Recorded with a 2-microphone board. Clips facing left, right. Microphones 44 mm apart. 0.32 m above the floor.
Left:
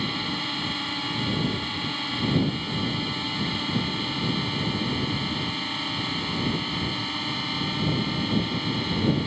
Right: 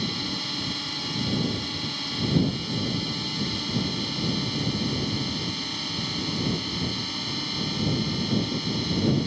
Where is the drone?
25° left (ahead or behind).